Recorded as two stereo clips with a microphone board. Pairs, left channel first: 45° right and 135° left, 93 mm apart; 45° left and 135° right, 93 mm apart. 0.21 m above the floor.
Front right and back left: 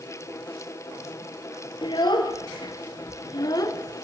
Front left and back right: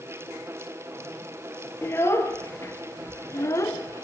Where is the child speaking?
15° right, 2.5 m; by 4.0 s straight ahead, 1.0 m.